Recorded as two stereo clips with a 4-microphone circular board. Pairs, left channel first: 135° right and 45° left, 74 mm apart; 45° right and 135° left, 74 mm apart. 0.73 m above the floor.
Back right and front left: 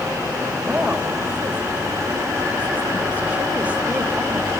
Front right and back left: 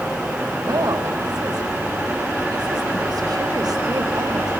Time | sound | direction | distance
0.6 | a woman speaking | 115° left | 3.5 m